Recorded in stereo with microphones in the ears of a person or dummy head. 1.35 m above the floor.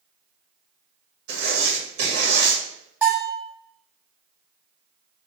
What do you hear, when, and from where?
1.3 s writing: 70° right (ahead or behind), 1.5 m
3.0 s a bell: 10° right (ahead or behind), 1.4 m